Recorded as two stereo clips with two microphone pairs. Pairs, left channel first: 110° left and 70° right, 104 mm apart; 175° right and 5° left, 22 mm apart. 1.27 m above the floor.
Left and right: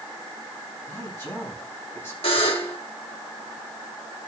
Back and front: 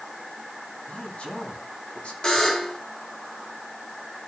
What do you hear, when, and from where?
0.9 s a man speaking: straight behind, 8.5 m
2.2 s a buzzer: 135° left, 3.5 m